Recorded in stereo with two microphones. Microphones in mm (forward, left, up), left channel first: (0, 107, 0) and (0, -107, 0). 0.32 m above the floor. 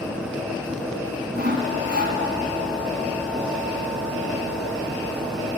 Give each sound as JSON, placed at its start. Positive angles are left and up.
{"t": 1.3, "sound": "sawing", "side_deg": -50, "distance_m": 1.4}